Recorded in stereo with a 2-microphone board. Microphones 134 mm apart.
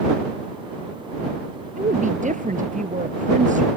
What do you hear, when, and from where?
1.8 s a woman speaking: 70° right (ahead or behind)